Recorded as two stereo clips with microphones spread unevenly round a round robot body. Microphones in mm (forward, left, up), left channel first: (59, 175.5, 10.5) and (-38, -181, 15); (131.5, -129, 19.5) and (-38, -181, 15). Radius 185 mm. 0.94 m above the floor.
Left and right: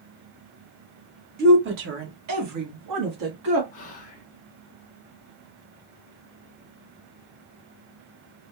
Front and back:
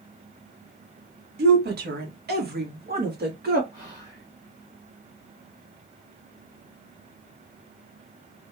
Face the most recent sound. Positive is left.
turn(degrees=135)